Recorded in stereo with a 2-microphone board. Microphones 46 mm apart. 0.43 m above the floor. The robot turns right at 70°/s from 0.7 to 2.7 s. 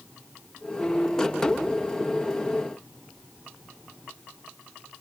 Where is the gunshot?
I don't hear a gunshot.